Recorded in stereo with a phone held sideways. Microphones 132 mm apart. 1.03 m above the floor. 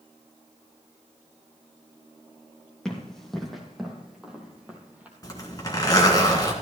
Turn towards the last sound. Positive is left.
turn(degrees=30)  # may be behind; listen again after turning